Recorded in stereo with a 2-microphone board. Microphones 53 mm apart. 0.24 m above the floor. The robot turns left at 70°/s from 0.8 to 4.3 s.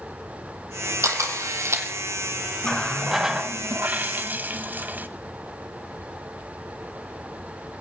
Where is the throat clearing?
No throat clearing in this recording.